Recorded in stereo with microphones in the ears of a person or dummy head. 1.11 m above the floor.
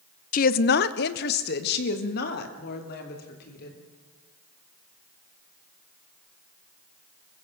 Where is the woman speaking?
40° left (ahead or behind), 0.6 m; by 3.8 s 55° left (ahead or behind), 4 m.